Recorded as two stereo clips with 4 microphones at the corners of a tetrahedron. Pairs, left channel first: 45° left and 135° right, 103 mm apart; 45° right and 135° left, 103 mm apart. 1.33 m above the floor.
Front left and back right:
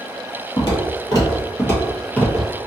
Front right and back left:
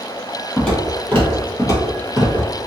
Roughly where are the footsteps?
Ahead left.